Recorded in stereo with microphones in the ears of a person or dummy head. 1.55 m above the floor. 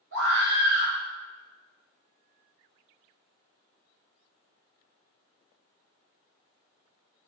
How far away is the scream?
About 1.9 m.